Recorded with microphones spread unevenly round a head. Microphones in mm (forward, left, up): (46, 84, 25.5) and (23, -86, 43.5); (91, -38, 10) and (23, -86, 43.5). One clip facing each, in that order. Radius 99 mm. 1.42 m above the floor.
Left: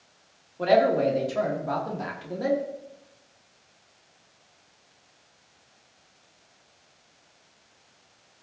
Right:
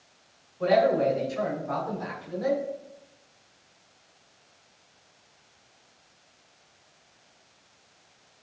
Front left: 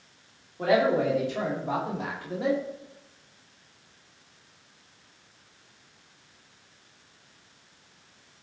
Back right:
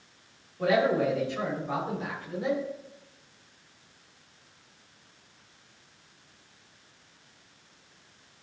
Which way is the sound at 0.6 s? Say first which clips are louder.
Left 1 dB, front left 1 dB; 100° left.